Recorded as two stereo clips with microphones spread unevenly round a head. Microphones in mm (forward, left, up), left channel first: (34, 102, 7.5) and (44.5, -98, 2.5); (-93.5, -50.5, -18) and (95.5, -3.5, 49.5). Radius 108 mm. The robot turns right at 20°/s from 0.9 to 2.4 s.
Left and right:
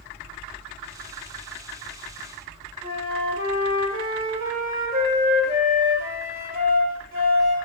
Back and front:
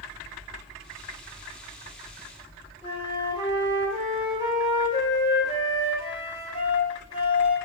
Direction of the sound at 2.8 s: 90° right.